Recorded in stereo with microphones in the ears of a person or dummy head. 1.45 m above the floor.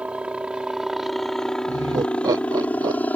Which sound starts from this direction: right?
Laughter, at 1.7 s.